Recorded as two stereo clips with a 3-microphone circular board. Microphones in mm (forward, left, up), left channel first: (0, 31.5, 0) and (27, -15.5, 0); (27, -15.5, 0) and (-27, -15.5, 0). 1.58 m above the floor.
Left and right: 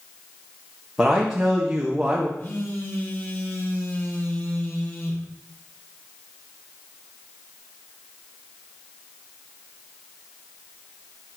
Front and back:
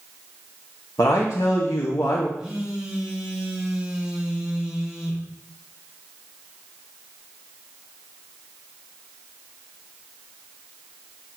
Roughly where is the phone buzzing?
Left.